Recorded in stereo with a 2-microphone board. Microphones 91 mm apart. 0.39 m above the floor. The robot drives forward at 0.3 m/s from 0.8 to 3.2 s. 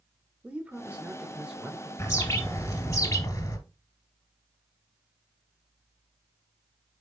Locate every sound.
0.4 s a man speaking: 15° right (ahead or behind), 0.9 m
2.0 s a bird: 30° left (ahead or behind), 1.7 m; by 3.6 s 40° left (ahead or behind), 1.4 m